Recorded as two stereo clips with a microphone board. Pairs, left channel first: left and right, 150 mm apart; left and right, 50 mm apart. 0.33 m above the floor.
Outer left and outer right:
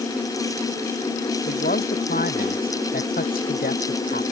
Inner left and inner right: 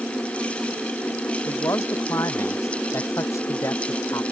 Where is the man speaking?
85° left.